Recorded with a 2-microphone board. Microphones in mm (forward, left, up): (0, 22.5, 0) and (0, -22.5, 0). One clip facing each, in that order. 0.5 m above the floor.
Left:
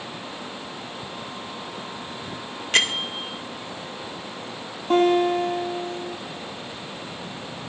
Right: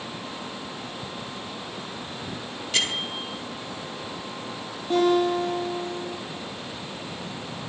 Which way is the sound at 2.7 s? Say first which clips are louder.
Left 5 dB; 50° left (ahead or behind).